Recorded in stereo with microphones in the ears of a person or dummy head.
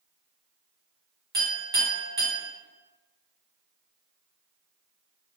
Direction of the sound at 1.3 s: 25° right (ahead or behind).